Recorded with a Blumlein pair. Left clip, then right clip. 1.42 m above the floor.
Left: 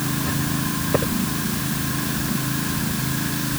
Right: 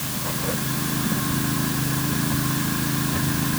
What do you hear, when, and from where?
Only background noise.